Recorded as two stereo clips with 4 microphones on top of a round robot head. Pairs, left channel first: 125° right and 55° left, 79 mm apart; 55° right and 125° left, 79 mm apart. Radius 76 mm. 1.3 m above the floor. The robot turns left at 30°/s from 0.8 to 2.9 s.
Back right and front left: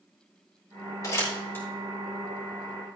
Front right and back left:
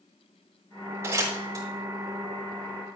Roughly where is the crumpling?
Behind.